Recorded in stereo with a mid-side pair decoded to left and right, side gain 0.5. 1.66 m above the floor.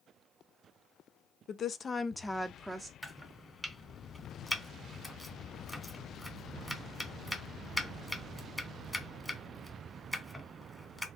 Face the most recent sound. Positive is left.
turn(degrees=0)